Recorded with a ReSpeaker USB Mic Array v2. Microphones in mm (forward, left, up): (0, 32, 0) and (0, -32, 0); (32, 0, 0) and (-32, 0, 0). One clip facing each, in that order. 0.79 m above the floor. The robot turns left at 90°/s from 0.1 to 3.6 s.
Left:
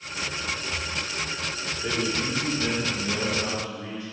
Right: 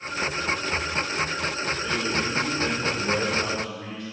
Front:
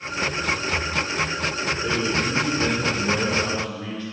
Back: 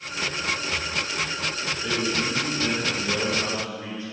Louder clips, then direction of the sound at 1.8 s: Left 2 dB, front 1 dB; 45° left.